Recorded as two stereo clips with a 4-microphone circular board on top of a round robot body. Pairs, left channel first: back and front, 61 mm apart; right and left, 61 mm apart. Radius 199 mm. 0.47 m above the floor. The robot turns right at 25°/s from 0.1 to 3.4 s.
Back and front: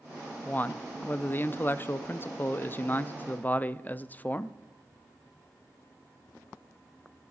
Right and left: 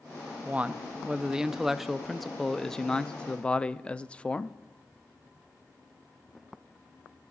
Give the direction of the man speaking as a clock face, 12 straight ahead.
7 o'clock.